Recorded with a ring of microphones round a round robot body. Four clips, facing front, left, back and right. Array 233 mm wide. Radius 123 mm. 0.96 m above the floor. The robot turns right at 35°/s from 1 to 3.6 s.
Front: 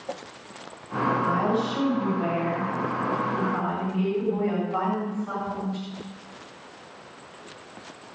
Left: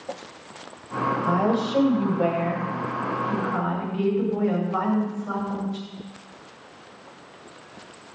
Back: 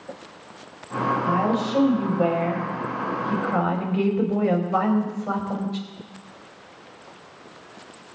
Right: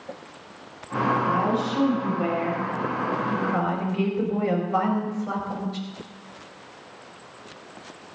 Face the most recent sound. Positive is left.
turn(degrees=-170)